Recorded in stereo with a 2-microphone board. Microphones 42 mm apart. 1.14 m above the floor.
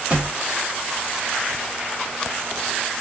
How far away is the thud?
About 1.1 m.